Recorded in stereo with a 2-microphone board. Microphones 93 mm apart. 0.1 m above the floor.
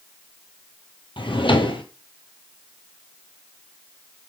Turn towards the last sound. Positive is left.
turn(degrees=65)  # may be behind; listen again after turning